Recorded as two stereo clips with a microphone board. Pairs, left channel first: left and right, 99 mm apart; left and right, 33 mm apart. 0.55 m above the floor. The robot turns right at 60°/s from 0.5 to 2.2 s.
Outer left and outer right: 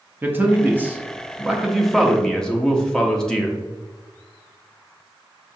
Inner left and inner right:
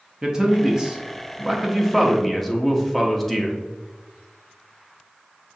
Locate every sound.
0.2 s a man speaking: 20° right (ahead or behind), 0.6 m; by 3.6 s 5° left (ahead or behind), 0.6 m